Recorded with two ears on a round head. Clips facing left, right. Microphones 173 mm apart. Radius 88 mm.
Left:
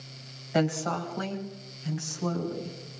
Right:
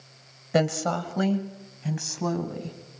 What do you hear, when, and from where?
0.5 s a woman speaking: 60° right (ahead or behind), 2.5 m; by 3.0 s 80° right, 4 m